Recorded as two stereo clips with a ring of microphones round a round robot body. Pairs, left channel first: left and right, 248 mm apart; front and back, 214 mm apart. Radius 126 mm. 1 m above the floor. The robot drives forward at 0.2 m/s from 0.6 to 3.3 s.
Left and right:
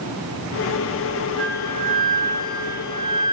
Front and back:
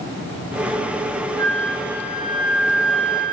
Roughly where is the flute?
Behind right.